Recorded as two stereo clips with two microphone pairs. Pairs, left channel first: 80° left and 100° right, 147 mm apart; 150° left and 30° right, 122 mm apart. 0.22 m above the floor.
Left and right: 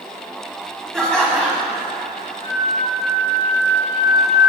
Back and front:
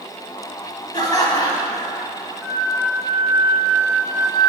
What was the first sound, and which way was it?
Laughter, 160° left.